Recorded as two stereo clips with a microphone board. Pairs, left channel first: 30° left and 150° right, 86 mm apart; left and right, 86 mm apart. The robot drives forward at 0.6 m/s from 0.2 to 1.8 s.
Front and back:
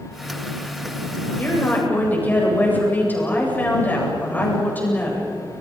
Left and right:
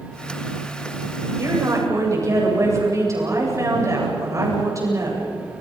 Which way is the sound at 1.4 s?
40° right.